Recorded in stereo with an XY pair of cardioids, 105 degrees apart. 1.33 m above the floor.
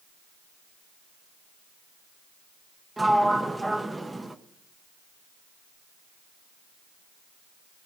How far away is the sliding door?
About 0.8 m.